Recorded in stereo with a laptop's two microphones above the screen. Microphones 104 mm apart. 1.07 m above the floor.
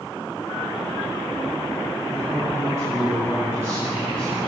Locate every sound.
2.1 s a man speaking: 5° right (ahead or behind), 3.5 m